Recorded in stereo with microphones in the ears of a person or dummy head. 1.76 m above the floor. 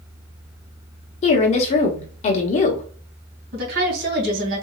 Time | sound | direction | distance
1.2 | a woman speaking | 35° left (ahead or behind) | 0.9 m
3.5 | a woman speaking | 70° right (ahead or behind) | 2.5 m